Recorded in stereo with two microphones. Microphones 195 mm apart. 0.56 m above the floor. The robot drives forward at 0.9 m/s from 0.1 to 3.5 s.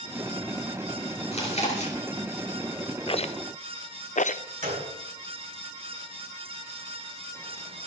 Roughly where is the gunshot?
Right.